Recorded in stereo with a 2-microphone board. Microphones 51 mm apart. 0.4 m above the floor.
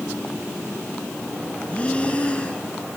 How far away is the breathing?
About 2.5 m.